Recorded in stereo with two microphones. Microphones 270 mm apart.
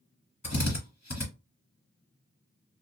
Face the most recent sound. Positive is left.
turn(degrees=75)  # may be behind; listen again after turning